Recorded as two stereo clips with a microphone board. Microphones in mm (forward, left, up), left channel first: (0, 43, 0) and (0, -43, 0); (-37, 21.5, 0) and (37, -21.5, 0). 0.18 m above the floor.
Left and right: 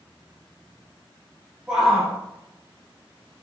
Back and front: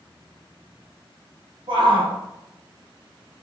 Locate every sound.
1.7 s a shout: 10° right, 5 m